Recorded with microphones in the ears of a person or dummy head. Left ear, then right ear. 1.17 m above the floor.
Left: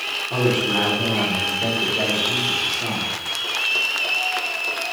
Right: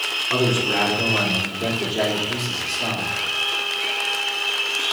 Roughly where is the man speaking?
Right.